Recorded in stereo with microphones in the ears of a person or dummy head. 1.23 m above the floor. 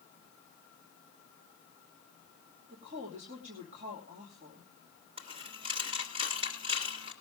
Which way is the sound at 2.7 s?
40° right (ahead or behind).